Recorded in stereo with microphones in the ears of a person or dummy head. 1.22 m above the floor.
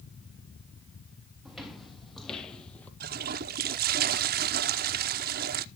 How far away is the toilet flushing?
About 0.9 m.